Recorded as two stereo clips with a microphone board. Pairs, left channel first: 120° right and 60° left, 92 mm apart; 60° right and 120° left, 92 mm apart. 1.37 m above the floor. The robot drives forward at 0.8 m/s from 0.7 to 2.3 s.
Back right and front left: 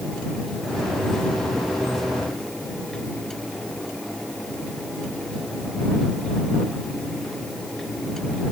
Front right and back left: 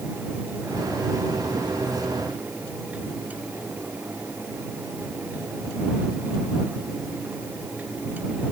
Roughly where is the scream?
I don't hear a scream.